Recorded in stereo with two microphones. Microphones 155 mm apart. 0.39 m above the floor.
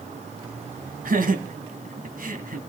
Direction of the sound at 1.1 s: 65° right (ahead or behind).